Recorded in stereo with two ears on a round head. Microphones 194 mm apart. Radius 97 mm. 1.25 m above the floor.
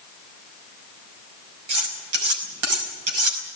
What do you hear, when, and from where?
1.7 s cutlery clinking: 75° right (ahead or behind), 5.5 m